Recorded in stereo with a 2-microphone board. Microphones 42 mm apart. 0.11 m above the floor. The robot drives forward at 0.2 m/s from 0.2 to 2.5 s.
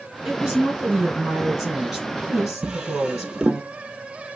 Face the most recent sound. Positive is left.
turn(degrees=-20)  # may be behind; listen again after turning